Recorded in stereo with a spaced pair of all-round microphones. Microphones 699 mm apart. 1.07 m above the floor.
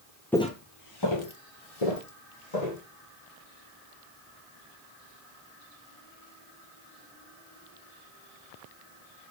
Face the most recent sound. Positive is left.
turn(degrees=70)  # may be behind; listen again after turning